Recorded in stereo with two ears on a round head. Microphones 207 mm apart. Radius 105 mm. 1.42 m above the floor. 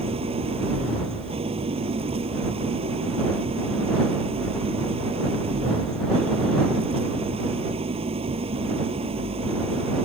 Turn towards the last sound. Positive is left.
turn(degrees=-25)  # may be behind; listen again after turning